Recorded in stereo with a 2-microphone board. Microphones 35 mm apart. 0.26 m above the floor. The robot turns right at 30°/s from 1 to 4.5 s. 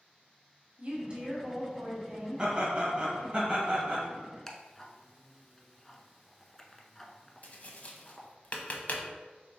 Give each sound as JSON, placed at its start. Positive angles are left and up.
{"t": 0.8, "sound": "a woman speaking", "azimuth_deg": -65, "distance_m": 1.5}
{"t": 2.4, "sound": "laughter", "azimuth_deg": -125, "distance_m": 1.3}
{"t": 4.5, "sound": "ticking", "side_deg": 10, "distance_m": 0.5}
{"t": 7.4, "sound": "tapping", "side_deg": 50, "distance_m": 0.5}